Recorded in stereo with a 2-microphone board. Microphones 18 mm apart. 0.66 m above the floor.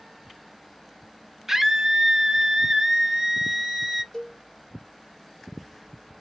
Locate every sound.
1.5 s a scream: 15° right (ahead or behind), 0.6 m
4.1 s a cowbell: 20° left (ahead or behind), 3 m